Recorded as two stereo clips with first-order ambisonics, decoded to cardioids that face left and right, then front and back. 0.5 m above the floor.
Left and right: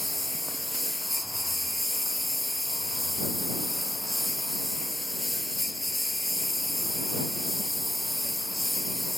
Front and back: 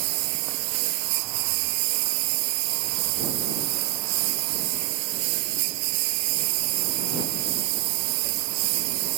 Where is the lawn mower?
175° left.